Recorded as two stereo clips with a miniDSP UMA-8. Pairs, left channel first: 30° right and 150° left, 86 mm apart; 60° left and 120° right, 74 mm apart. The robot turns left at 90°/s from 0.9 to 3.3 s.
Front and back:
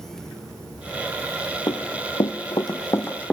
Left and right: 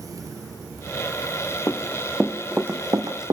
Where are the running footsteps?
5° left, 1.7 m; by 3.3 s 110° right, 2.5 m.